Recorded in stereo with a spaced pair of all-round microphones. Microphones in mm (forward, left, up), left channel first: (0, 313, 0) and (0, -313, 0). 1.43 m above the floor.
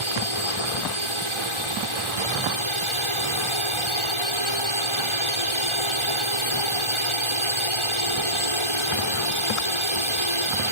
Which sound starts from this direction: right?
A drone, at 0.0 s.